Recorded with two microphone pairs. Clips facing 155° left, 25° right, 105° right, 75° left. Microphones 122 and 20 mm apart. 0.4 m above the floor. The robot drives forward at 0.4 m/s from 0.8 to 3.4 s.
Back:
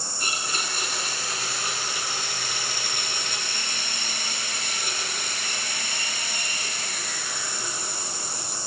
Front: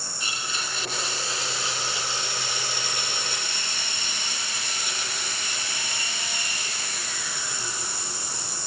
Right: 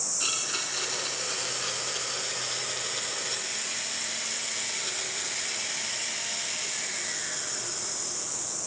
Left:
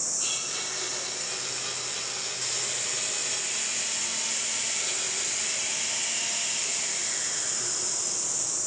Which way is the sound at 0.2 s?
170° right.